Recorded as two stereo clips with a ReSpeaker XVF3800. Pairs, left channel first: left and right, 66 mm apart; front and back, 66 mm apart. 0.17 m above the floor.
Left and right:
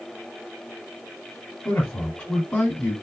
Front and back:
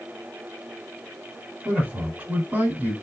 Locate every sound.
1.6 s a man speaking: 140° left, 1.4 m